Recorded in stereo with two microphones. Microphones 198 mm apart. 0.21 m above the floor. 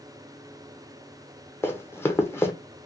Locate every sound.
1.6 s running footsteps: 10° left (ahead or behind), 0.6 m